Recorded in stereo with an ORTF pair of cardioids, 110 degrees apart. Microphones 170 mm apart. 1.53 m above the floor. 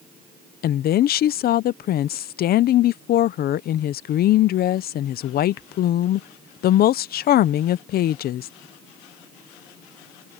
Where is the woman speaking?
60° left.